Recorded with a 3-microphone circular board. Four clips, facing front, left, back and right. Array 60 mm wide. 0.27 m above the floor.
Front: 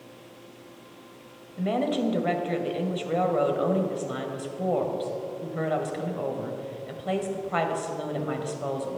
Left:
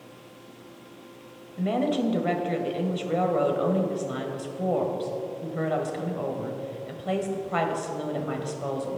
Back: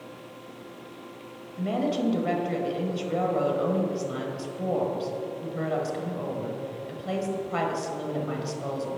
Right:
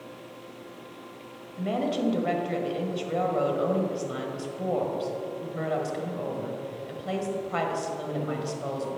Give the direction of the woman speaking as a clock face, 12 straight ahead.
11 o'clock.